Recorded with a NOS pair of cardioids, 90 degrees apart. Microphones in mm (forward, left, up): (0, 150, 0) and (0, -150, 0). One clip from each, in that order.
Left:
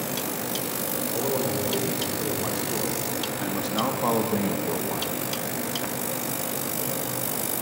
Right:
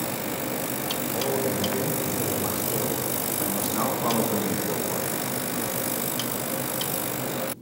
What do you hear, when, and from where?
1.1 s a man speaking: 20° left, 6.5 m; by 5.1 s 15° left, 1.6 m